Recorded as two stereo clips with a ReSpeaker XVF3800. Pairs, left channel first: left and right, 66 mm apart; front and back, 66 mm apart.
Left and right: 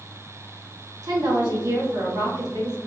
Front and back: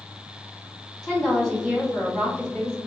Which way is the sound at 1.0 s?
85° right.